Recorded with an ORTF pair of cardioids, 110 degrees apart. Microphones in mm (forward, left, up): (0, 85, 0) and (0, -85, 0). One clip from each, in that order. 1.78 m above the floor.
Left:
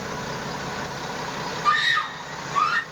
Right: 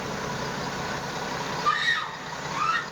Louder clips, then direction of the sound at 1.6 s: Left 4 dB; 60° left.